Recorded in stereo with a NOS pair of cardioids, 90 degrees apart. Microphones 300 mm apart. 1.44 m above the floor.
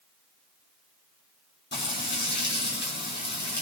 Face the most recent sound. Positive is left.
turn(degrees=35)